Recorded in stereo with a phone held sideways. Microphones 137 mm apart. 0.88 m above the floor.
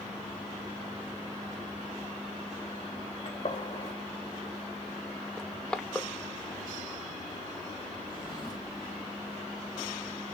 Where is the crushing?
5° left (ahead or behind), 0.7 m.